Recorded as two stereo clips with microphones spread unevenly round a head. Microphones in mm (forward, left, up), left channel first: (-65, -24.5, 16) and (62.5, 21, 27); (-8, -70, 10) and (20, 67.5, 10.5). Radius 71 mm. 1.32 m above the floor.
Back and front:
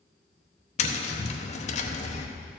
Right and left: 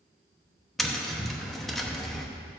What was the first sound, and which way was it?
Tapping, 170° left.